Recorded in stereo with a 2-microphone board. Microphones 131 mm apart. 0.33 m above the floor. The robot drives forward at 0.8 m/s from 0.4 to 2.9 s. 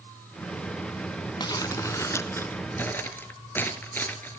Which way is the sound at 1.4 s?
35° left (ahead or behind).